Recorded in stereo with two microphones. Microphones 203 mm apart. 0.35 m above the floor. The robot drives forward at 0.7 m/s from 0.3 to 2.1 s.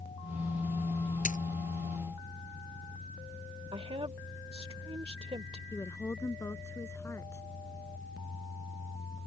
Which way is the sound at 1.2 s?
40° left (ahead or behind).